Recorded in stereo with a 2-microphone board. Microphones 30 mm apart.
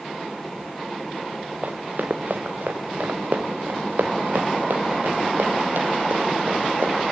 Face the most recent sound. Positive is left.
turn(degrees=-65)  # may be behind; listen again after turning